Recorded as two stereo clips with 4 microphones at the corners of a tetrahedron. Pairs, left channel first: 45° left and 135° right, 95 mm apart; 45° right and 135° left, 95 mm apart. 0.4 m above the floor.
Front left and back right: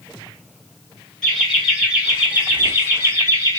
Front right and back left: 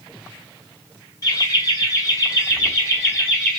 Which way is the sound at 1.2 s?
35° right.